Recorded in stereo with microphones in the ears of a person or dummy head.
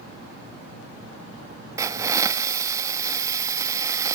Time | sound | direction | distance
1.8 | a hiss | 15° right (ahead or behind) | 1.4 m